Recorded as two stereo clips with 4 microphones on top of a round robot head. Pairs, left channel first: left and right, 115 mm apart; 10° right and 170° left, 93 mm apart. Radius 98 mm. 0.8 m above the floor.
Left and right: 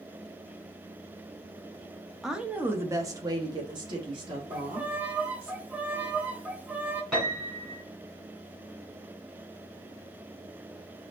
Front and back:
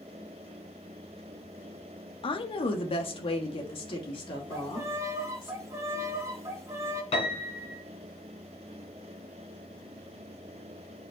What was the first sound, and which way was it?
A woman speaking, straight ahead.